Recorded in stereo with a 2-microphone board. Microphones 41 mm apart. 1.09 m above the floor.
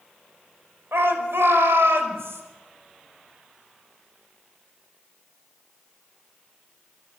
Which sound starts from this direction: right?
A shout, at 0.9 s.